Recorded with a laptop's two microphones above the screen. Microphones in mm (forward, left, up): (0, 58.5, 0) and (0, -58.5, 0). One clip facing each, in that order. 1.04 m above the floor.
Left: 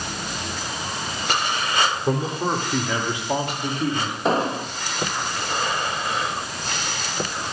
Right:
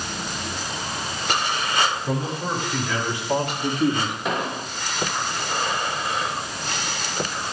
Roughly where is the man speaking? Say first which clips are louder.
Left 3 dB; left.